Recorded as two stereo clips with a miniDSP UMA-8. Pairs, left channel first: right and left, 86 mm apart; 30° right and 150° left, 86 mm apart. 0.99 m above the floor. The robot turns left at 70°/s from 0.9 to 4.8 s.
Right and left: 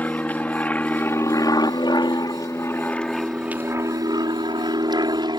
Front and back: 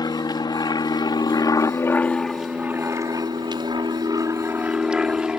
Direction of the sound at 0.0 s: 20° right.